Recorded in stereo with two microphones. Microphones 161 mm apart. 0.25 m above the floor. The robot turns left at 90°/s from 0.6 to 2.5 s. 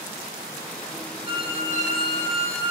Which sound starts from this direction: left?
A violin, at 1.2 s.